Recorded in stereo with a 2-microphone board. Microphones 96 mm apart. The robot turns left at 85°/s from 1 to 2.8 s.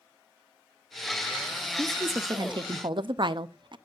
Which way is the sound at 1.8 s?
15° right.